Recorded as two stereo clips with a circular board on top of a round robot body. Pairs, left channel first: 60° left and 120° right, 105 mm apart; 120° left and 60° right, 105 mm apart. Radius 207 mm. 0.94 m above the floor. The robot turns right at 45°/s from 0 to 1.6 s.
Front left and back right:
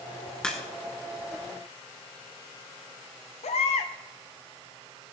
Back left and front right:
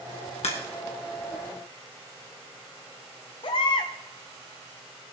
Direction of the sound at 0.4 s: 140° left.